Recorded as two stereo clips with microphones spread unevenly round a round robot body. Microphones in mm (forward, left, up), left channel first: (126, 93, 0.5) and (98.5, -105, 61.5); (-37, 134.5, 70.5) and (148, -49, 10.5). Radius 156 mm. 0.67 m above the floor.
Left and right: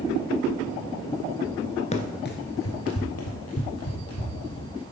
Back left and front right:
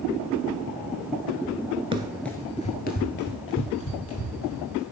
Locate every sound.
1.9 s running footsteps: 30° left, 0.6 m; by 4.8 s 115° left, 2 m